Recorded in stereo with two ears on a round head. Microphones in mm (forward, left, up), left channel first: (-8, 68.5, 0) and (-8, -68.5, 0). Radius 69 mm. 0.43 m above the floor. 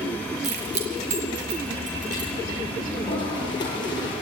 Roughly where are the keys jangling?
Right.